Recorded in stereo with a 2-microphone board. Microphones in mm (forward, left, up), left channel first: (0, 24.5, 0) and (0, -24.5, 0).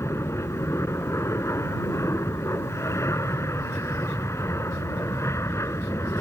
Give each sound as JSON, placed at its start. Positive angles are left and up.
{"t": 0.0, "sound": "an aircraft", "side_deg": 65}